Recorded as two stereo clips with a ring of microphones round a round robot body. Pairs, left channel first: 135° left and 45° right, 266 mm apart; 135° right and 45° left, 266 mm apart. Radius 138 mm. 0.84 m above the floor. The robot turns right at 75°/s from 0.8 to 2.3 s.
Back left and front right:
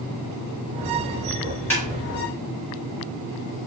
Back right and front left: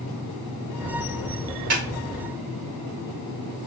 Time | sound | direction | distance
1.7 | a snare drum | 50° left | 3 m